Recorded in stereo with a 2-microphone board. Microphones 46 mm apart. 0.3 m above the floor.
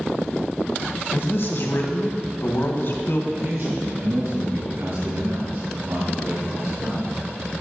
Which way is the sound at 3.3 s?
60° right (ahead or behind).